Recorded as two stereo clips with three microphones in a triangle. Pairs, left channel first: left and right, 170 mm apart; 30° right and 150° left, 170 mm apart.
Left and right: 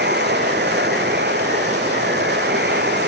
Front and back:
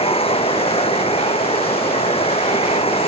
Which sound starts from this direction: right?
Running water, at 0.0 s.